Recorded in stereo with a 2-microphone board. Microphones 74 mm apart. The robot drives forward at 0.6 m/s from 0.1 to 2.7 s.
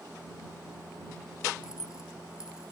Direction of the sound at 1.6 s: 10° right (ahead or behind).